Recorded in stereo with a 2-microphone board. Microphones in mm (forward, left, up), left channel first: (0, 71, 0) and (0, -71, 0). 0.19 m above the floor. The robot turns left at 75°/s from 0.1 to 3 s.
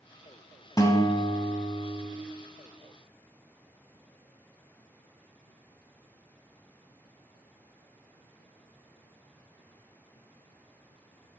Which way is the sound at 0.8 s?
125° left.